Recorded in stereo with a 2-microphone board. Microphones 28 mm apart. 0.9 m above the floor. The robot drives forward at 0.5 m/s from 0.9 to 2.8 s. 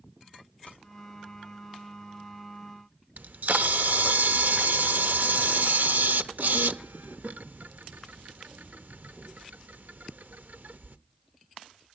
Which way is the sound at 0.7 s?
50° left (ahead or behind).